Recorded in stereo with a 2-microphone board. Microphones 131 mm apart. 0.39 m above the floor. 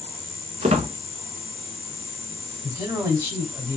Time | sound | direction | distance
0.6 | a squeak | 60° right (ahead or behind) | 0.5 m
2.6 | a man speaking | 15° right (ahead or behind) | 2 m